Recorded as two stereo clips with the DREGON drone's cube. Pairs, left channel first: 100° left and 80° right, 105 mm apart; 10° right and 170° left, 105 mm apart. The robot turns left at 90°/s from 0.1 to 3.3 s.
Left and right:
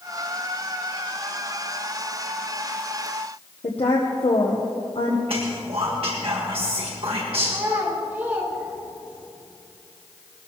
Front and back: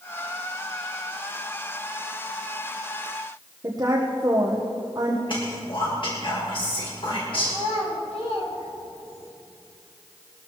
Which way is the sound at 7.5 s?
5° right.